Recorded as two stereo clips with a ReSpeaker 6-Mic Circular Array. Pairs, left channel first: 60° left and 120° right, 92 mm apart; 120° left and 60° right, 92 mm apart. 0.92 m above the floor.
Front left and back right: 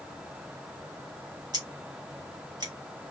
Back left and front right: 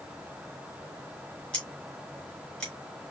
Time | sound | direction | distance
1.5 | scissors | 160° right | 3.5 m